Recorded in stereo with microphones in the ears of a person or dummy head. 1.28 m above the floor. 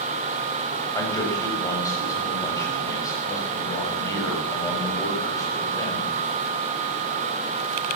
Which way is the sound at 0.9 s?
20° left (ahead or behind).